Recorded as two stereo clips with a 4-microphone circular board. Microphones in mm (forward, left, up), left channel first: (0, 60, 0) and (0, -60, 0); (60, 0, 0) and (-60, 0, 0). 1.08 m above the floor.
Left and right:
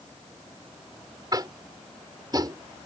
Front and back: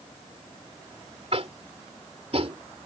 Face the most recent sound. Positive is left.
turn(degrees=-145)